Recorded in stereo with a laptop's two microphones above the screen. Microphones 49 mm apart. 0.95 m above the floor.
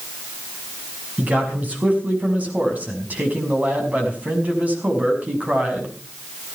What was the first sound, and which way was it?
A man speaking, 30° right (ahead or behind).